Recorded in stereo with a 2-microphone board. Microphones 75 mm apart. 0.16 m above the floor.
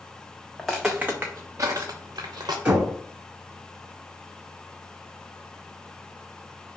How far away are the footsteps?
About 0.7 m.